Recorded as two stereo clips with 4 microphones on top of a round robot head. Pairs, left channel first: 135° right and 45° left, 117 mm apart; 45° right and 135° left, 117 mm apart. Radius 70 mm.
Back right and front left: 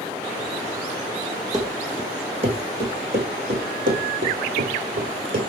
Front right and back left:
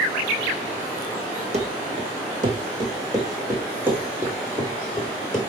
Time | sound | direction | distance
1.5 | running footsteps | 105° left | 1.9 m